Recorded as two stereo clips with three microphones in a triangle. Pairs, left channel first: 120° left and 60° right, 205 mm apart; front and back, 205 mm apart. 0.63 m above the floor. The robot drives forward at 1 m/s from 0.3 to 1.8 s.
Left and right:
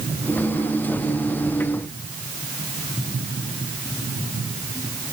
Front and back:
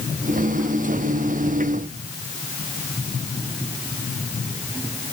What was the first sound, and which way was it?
Only background noise.